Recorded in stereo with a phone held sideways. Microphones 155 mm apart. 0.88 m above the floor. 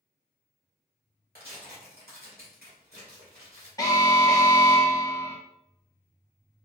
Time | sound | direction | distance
1.4 | tearing paper | 75° right (ahead or behind) | 1.4 m
3.8 | an alarm | 20° left (ahead or behind) | 0.7 m